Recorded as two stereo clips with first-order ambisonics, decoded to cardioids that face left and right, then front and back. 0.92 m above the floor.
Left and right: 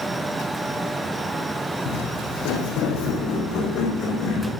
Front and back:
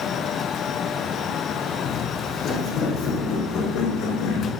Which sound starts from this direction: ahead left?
Footsteps, at 1.9 s.